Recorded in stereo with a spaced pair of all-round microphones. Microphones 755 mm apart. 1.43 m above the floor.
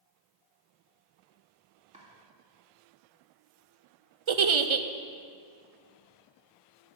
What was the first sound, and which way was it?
Chopping, 10° right (ahead or behind).